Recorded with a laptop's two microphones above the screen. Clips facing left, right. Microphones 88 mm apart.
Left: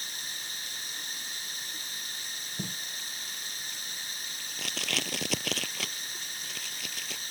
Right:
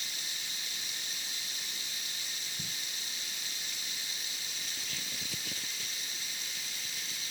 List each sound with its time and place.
0.0 s running water: 40° left (ahead or behind)
2.6 s tape being pulled: 75° left (ahead or behind)